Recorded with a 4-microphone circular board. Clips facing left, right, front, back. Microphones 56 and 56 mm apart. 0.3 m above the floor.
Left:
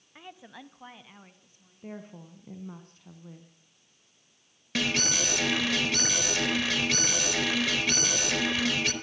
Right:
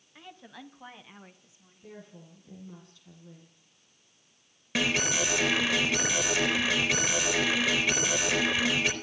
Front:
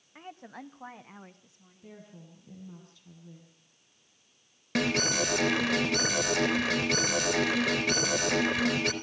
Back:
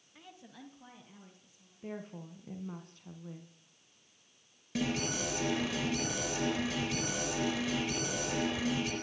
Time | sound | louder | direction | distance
0.1 | a woman speaking | left 1 dB, front 8 dB | 25° left | 1.5 m
1.8 | a woman speaking | left 5 dB, back 6 dB | 140° left | 2.5 m
4.8 | an alarm | right 1 dB, front 6 dB | 10° right | 4 m